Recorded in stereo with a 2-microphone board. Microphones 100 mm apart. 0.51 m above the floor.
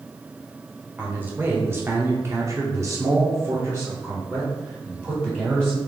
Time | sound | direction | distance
1.0 | a man speaking | 20° right (ahead or behind) | 1.2 m